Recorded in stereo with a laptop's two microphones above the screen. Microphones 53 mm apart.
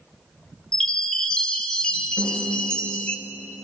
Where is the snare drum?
75° left (ahead or behind), 5 m.